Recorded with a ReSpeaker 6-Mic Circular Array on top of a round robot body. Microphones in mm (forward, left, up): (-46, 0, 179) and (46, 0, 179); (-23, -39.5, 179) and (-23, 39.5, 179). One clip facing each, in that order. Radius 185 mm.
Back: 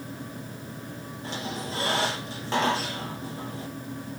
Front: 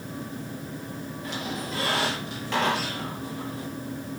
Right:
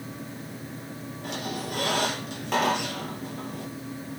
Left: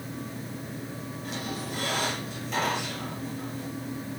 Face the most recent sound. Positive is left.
turn(degrees=-120)